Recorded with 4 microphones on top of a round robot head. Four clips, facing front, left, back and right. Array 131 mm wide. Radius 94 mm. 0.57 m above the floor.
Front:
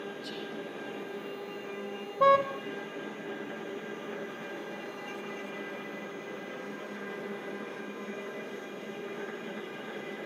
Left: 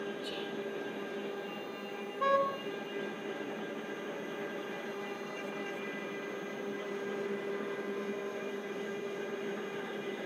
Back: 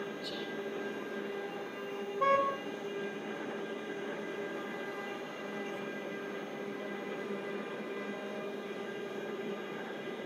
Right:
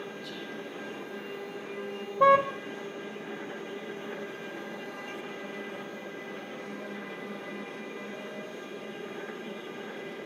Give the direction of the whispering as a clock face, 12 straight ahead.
8 o'clock.